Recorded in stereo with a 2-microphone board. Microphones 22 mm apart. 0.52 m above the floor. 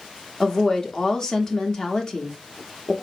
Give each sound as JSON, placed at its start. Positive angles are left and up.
{"t": 0.4, "sound": "a woman speaking", "side_deg": 30, "distance_m": 0.7}